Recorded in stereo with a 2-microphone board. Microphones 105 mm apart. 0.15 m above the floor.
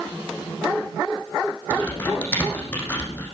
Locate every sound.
1.7 s typing on a keyboard: 15° left (ahead or behind), 6.5 m